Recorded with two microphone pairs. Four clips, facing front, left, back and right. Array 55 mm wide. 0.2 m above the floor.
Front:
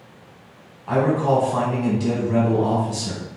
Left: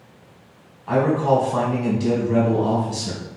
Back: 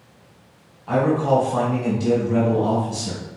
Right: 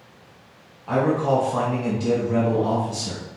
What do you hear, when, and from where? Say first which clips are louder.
0.9 s a man speaking: left 2 dB, even; 50° left, 1.1 m